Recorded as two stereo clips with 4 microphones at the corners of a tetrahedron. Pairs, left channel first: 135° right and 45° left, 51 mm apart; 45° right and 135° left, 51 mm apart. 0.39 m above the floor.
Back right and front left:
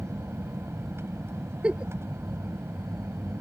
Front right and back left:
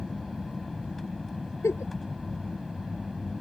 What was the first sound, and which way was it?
An aircraft, 40° left.